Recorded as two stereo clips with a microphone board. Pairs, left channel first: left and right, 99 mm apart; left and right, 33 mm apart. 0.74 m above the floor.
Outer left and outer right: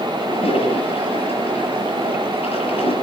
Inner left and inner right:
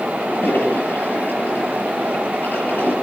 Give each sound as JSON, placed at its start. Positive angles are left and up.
{"t": 0.2, "sound": "a toilet flushing", "side_deg": 80, "distance_m": 6.0}